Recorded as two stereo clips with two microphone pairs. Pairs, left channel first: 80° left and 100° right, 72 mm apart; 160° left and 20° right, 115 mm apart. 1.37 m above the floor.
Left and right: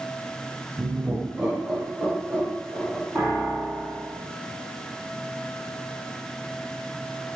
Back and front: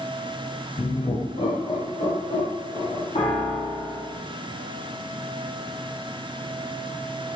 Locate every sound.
0.8 s laughter: 170° right, 0.5 m; by 3.0 s 165° right, 1.8 m
3.1 s a piano: 175° right, 1.6 m